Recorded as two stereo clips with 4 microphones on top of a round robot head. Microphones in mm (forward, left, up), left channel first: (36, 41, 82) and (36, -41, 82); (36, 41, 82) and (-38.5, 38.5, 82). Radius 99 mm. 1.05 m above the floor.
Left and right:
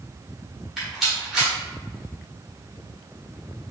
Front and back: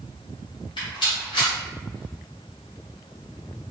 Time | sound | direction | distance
0.8 | a rattle | 5° right | 1.2 m